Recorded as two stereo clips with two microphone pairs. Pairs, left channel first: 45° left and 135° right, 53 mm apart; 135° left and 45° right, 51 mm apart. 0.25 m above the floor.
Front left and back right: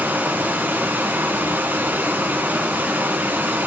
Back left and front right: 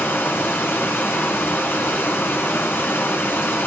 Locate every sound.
0.0 s running water: 170° left, 2.5 m